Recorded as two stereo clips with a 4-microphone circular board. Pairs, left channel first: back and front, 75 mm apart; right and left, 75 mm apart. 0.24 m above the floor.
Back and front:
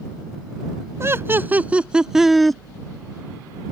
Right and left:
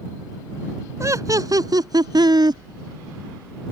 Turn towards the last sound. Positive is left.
turn(degrees=95)